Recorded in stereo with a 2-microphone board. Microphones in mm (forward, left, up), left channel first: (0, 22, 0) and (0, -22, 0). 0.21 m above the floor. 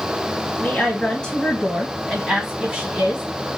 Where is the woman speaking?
30° left (ahead or behind), 1.6 m; by 3.2 s 30° right (ahead or behind), 1.6 m.